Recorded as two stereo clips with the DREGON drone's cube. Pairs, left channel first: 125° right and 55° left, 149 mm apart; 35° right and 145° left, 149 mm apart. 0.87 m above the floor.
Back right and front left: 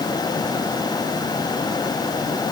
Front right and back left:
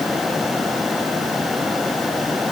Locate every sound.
Only background noise.